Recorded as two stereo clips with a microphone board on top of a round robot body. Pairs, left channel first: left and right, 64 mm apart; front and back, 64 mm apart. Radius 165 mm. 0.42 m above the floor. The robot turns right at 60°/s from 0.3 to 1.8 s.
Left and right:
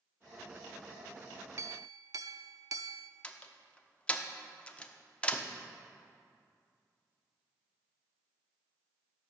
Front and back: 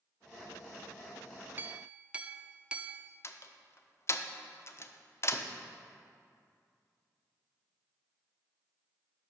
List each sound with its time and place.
1.6 s a clink: 125° right, 0.5 m; by 3.1 s 110° right, 0.5 m
3.2 s a door slam: 25° left, 1.0 m